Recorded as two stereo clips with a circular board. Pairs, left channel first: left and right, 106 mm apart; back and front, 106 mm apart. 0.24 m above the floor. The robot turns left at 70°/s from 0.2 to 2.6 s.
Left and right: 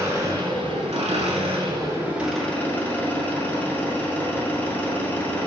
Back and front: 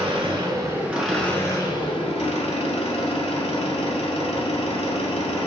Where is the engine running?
30° right, 0.8 m; by 5.5 s 160° left, 0.8 m.